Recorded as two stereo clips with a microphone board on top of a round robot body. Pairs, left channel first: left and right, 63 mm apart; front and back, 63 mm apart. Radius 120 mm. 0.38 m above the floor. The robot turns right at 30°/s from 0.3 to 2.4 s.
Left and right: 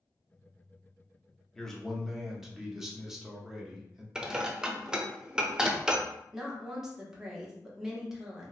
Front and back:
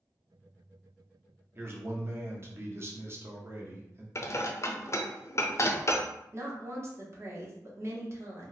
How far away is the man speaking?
About 1.0 m.